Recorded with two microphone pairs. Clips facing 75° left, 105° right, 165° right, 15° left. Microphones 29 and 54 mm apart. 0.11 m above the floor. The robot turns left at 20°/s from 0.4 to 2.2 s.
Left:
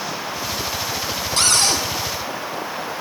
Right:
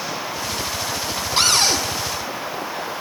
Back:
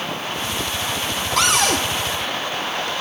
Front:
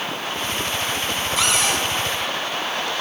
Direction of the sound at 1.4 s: 175° right.